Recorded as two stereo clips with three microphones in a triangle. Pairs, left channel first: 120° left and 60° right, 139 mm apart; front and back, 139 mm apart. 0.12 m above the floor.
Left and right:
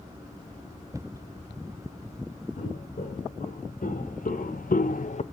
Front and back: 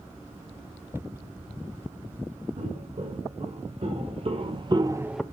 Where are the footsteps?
145° left, 4.5 m; by 5.2 s 85° left, 0.6 m.